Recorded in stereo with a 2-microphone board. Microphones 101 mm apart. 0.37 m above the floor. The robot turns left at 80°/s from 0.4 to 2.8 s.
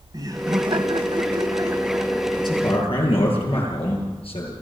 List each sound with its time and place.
0.1 s laughter: 45° right, 2 m; by 3.3 s 120° left, 2 m
2.4 s a man speaking: 130° left, 8.5 m; by 4.5 s 95° left, 8.5 m